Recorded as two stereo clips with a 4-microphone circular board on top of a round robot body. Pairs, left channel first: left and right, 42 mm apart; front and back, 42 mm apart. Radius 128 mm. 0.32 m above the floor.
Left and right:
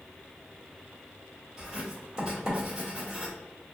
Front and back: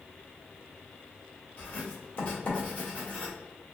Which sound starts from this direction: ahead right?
Writing, at 1.6 s.